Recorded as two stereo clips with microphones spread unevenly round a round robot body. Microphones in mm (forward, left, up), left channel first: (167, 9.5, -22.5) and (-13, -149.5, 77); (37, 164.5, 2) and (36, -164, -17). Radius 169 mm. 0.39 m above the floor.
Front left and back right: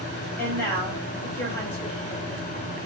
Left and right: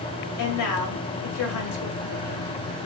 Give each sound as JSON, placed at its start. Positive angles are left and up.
{"t": 0.4, "sound": "a woman speaking", "azimuth_deg": 95, "distance_m": 1.6}